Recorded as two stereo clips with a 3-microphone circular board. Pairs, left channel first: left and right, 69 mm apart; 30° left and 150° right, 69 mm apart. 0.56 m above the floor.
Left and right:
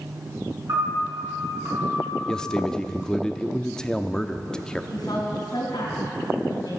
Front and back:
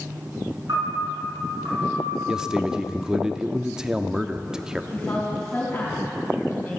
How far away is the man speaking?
About 0.6 m.